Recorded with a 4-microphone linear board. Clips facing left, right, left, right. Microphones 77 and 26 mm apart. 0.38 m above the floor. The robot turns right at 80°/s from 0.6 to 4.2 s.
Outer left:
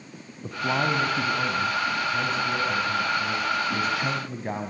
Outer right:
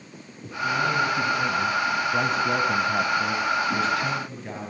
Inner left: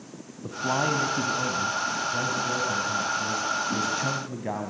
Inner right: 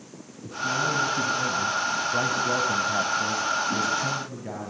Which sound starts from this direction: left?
A man speaking, at 0.4 s.